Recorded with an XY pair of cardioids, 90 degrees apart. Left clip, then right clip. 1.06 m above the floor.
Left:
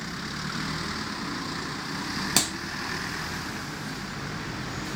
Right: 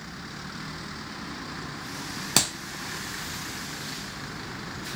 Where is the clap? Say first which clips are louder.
Right 2 dB; 20° right, 0.7 m.